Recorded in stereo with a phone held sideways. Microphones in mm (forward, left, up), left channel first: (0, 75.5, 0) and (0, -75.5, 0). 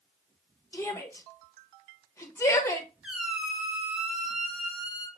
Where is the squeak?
5° right (ahead or behind), 0.8 m.